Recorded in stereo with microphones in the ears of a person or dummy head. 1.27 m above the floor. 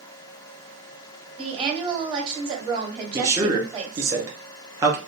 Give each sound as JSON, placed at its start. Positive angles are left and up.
{"t": 1.4, "sound": "a woman speaking", "side_deg": -25, "distance_m": 1.4}
{"t": 3.1, "sound": "a man speaking", "side_deg": -15, "distance_m": 0.6}